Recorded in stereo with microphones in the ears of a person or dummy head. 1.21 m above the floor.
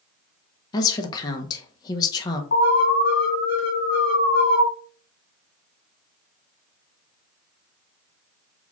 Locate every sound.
0.7 s a woman speaking: 25° left (ahead or behind), 0.7 m
2.5 s an alarm: 70° left (ahead or behind), 1.8 m